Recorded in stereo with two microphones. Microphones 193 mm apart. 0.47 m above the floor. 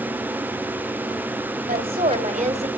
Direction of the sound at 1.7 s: 50° right (ahead or behind).